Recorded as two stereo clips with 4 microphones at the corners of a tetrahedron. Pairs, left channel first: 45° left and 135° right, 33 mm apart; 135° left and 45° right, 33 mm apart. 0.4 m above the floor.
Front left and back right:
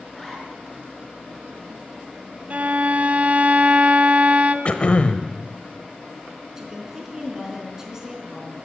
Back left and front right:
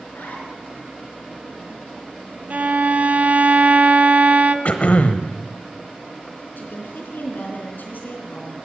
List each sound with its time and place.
0.1 s a zipper: 130° left, 4.5 m
2.5 s a violin: 85° right, 0.7 m
4.7 s throat clearing: 95° left, 1.0 m
6.6 s a woman speaking: 150° left, 4 m